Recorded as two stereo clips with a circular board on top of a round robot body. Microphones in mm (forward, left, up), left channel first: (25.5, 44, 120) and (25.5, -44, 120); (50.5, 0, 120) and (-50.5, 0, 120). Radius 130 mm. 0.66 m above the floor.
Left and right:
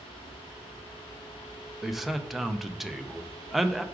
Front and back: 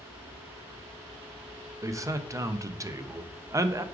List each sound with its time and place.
1.8 s a man speaking: 175° right, 0.5 m